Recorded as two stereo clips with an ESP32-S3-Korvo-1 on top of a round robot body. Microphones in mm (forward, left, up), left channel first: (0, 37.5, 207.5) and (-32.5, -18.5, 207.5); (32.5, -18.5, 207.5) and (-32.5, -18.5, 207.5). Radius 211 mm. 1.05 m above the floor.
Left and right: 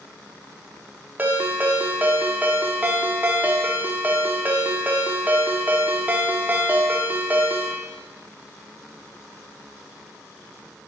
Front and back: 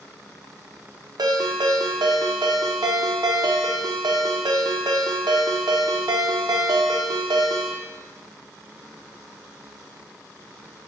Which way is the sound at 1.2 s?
175° left.